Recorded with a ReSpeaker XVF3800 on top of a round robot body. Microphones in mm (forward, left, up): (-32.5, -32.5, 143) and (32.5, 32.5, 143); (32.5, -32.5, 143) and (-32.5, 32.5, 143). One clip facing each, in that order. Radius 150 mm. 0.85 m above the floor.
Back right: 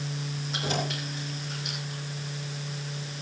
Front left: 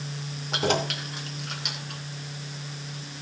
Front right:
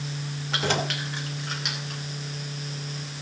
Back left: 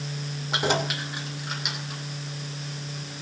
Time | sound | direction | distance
0.5 | keys jangling | 65° left | 2.5 m